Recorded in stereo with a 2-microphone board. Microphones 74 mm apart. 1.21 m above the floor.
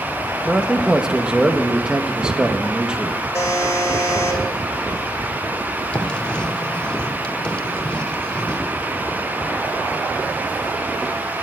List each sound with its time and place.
0.5 s a man speaking: 10° right (ahead or behind), 1.1 m
3.3 s a buzzer: 35° left (ahead or behind), 5 m
5.9 s writing: 15° left (ahead or behind), 1.1 m